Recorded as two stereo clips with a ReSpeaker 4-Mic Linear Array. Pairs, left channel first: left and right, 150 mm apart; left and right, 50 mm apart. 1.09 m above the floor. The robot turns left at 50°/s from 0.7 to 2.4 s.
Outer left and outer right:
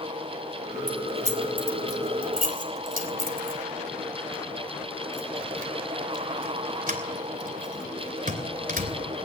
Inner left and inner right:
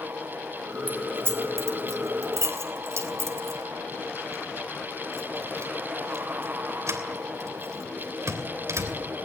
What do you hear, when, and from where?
0.9 s keys jangling: 30° right (ahead or behind), 3 m; by 9.0 s 70° right (ahead or behind), 3 m